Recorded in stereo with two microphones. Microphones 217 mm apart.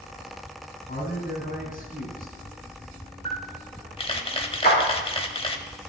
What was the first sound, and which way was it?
A man speaking, 50° left (ahead or behind).